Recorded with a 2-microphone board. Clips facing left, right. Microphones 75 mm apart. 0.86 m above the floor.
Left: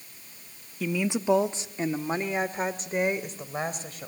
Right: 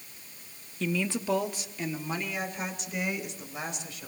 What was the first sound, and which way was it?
A woman speaking, 5° left (ahead or behind).